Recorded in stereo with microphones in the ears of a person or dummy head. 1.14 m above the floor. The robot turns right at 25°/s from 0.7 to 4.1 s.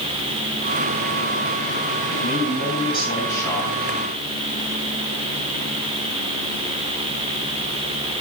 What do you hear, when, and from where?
2.1 s a man speaking: 130° left, 7.5 m; by 3.8 s 175° left, 7.5 m